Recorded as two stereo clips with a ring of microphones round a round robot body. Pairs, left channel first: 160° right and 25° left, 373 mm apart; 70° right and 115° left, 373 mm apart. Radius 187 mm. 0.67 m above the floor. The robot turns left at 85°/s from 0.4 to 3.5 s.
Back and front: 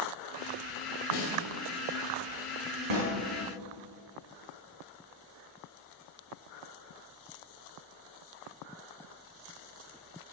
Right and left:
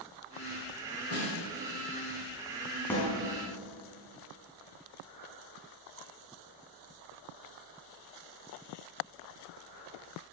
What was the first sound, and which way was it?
A snare drum, 130° right.